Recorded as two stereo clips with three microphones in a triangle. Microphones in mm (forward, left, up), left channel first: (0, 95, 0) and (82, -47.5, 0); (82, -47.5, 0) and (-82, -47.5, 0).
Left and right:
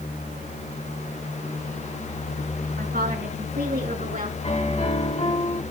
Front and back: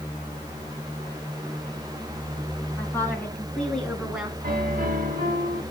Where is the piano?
165° left, 1.8 m.